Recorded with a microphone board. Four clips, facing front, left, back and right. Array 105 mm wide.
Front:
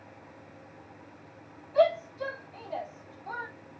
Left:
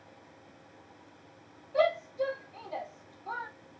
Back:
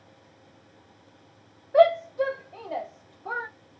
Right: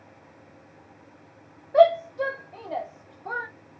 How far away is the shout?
About 0.7 m.